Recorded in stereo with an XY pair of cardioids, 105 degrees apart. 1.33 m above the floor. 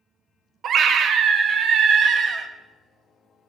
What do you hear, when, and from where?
0.6 s a scream: 60° right, 0.9 m